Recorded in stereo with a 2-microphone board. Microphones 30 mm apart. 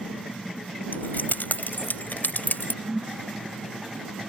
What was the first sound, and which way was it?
Keys jangling, 80° left.